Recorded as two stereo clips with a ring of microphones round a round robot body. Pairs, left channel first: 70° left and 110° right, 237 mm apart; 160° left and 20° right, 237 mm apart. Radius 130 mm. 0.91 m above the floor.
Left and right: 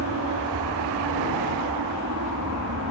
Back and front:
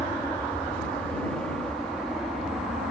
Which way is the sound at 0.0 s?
120° right.